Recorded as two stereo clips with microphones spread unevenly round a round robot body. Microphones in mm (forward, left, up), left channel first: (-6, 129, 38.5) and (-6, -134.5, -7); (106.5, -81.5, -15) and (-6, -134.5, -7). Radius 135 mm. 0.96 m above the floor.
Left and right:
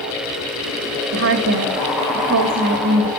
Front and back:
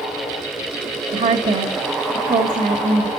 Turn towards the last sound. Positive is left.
turn(degrees=-135)